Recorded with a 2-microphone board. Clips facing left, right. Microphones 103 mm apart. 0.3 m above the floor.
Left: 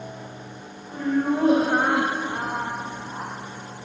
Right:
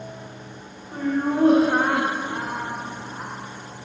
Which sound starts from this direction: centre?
Laughter, at 0.9 s.